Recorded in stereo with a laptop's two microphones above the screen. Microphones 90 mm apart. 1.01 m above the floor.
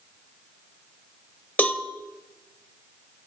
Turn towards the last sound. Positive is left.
turn(degrees=15)  # may be behind; listen again after turning